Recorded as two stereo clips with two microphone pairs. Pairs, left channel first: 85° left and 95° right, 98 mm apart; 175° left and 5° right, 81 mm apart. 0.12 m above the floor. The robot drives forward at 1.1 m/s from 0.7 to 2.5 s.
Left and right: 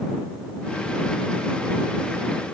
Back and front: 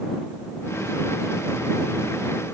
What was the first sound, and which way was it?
Only background noise.